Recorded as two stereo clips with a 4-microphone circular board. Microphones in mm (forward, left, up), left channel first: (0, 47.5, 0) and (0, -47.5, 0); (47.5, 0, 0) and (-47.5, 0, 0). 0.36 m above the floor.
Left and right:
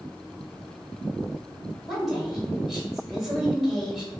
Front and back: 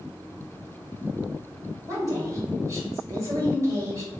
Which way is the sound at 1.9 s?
175° right.